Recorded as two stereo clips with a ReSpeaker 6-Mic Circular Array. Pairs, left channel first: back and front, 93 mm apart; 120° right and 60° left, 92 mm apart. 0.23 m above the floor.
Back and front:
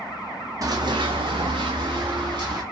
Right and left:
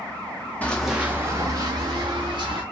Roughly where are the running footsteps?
Ahead right.